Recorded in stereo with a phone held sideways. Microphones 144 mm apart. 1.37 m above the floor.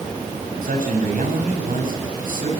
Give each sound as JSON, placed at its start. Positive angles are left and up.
{"t": 0.6, "sound": "a man speaking", "side_deg": -75, "distance_m": 7.5}